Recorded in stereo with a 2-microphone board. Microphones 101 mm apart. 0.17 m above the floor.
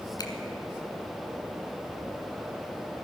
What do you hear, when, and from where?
0.2 s a finger snap: 45° left (ahead or behind), 1.5 m